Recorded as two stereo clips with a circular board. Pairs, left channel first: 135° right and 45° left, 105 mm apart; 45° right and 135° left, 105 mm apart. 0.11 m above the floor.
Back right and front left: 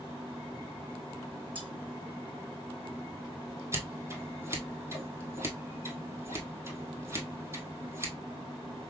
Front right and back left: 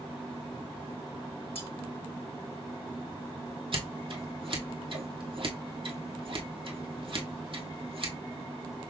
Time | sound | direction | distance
1.6 | cutlery clinking | 30° right | 3.5 m
3.7 | scissors | 110° left | 1.4 m